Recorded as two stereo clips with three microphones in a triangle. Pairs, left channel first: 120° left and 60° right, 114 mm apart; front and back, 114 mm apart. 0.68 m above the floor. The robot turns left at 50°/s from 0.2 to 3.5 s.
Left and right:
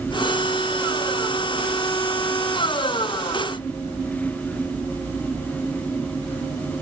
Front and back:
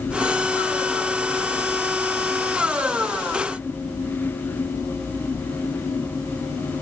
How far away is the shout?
I don't hear a shout.